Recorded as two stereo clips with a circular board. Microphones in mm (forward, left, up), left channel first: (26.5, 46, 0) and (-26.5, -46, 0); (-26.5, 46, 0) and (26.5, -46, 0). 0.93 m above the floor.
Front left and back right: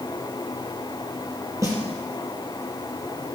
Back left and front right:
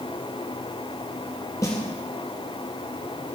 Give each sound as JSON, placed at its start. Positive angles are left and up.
{"t": 1.6, "sound": "a snare drum", "azimuth_deg": 180, "distance_m": 4.5}